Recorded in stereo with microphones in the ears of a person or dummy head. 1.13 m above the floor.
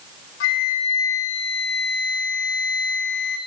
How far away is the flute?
About 1.9 m.